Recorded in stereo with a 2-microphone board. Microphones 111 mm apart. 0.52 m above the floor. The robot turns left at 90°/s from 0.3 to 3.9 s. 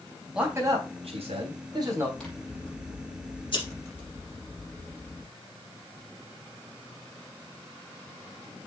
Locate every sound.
0.3 s a man speaking: 5° right, 4 m; by 2.1 s 165° right, 4 m
2.2 s scissors: 175° left, 4 m; by 5.3 s 20° left, 4 m